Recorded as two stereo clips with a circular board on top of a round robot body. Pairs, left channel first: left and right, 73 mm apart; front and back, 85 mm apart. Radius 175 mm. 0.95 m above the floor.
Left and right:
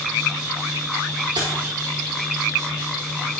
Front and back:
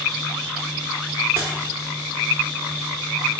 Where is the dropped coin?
110° right, 0.7 m.